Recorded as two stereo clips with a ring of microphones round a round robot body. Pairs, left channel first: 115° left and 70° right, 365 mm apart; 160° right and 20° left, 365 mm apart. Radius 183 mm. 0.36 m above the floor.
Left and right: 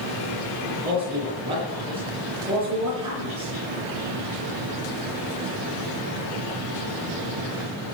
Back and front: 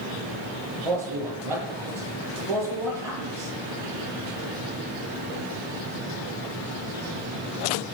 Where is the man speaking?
10° left, 8.5 m.